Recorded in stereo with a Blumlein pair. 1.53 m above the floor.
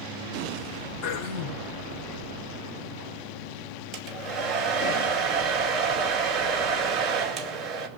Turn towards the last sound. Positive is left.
turn(degrees=-25)